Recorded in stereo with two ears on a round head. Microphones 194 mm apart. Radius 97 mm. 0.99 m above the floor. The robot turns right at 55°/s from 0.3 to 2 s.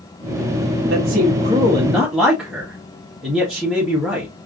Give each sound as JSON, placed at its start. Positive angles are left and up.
{"t": 0.9, "sound": "a man speaking", "azimuth_deg": -60, "distance_m": 1.3}